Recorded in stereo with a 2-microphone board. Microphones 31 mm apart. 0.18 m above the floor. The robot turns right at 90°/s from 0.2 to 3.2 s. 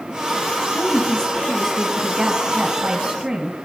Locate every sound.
0.7 s a woman speaking: 30° left (ahead or behind), 1.3 m; by 3.6 s 15° right (ahead or behind), 1.3 m